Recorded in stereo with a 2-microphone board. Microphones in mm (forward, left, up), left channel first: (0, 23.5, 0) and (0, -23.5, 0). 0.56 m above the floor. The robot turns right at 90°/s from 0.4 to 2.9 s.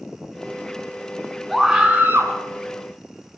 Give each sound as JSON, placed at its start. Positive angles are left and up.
{"t": 1.5, "sound": "a scream", "azimuth_deg": 175, "distance_m": 5.0}